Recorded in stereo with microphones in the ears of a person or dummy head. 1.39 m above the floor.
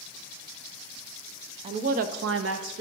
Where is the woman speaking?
30° right (ahead or behind), 0.6 m; by 2.8 s 55° right (ahead or behind), 0.7 m.